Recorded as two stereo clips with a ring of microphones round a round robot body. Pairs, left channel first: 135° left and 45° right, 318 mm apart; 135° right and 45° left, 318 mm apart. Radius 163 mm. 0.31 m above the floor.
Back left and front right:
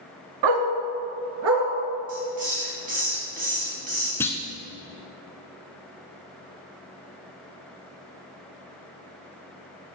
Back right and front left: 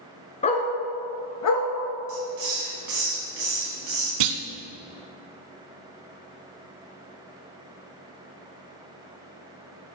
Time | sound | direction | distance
0.4 | a dog barking | 65° right | 1.1 m
2.1 | a hiss | 20° left | 3.5 m
4.2 | a clunk | 50° left | 0.7 m